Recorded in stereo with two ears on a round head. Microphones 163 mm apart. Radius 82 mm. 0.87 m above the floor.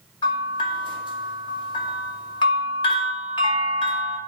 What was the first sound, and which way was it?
A bell, 25° left (ahead or behind).